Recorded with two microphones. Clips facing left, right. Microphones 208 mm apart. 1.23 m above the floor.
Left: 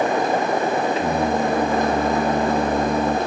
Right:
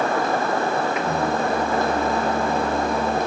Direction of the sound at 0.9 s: 30° left (ahead or behind).